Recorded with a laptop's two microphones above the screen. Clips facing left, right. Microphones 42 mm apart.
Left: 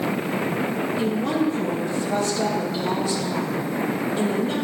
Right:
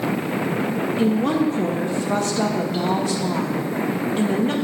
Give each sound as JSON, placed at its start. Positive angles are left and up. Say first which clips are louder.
{"t": 1.0, "sound": "a woman speaking", "louder": "right 4 dB", "side_deg": -50, "distance_m": 1.5}